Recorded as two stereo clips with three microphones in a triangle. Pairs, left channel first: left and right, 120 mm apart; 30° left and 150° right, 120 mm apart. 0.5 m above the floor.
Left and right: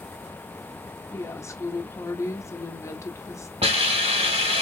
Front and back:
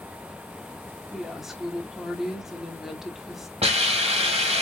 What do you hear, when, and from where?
1.1 s a woman speaking: 125° left, 0.7 m
3.6 s a hiss: 120° right, 1.3 m